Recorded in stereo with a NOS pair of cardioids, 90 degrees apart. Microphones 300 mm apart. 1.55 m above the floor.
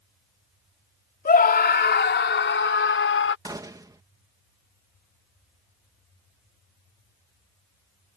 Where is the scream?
30° left; by 3.4 s 45° left.